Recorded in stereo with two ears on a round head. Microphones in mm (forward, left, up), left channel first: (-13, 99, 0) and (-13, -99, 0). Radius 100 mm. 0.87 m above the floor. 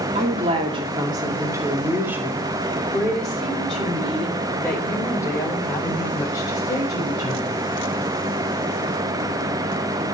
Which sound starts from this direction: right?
A woman speaking, at 0.1 s.